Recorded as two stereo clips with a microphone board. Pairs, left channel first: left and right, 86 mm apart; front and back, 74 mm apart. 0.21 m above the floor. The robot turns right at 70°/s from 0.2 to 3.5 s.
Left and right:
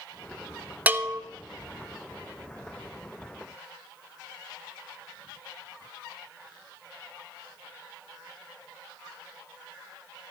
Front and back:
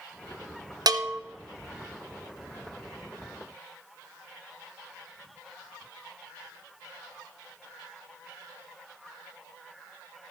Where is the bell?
160° right, 0.8 m; by 1.2 s 135° right, 0.8 m.